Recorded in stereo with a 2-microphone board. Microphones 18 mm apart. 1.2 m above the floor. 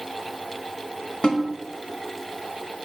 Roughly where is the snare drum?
Left.